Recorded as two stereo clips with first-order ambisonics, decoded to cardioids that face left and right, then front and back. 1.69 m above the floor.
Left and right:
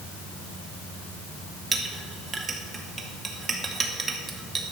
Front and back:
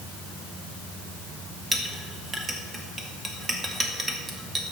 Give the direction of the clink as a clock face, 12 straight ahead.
4 o'clock.